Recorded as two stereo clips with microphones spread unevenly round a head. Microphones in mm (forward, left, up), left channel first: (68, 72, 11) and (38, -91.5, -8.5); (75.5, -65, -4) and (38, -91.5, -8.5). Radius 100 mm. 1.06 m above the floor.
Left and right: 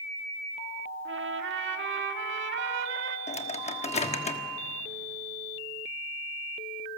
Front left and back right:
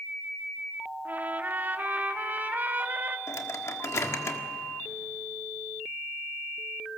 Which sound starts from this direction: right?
A trumpet, at 1.1 s.